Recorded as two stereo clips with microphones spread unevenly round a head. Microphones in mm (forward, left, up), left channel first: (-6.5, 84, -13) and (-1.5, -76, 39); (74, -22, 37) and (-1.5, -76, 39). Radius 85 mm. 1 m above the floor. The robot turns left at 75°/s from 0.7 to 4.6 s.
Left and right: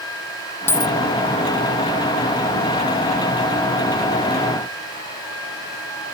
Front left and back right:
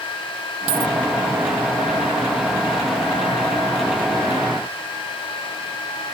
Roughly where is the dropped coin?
Behind.